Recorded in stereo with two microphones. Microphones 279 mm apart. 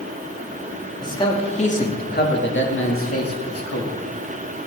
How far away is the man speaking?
About 2.5 m.